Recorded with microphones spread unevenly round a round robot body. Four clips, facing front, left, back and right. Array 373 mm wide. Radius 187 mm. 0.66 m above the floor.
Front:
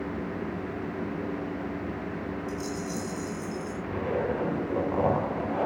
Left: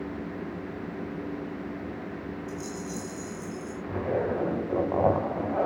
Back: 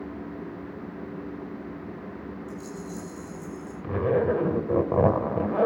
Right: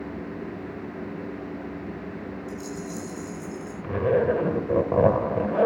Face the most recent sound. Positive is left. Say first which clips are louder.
# right 7 dB, back 6 dB
turn(degrees=-135)